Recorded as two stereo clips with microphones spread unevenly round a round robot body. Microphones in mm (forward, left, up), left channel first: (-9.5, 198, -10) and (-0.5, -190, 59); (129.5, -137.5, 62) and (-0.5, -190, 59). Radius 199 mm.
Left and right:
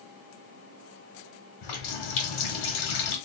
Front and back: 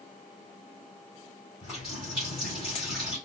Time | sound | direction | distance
1.6 | a running tap | 115° left | 1.7 m